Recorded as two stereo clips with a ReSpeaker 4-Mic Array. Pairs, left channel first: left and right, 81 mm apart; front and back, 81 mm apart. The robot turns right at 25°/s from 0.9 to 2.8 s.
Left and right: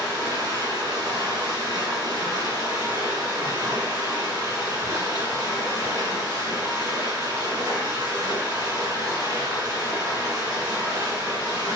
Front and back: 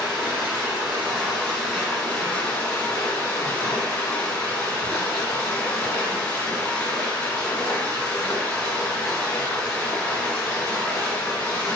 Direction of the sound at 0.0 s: 110° right.